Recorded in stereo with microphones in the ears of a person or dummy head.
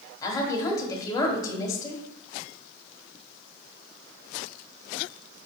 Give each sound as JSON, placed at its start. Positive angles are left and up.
{"t": 0.2, "sound": "a woman speaking", "side_deg": 15, "distance_m": 1.2}